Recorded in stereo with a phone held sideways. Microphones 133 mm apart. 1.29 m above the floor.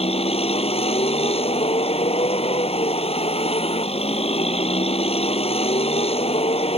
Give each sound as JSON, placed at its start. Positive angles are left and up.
{"t": 0.0, "sound": "a vehicle", "side_deg": 50}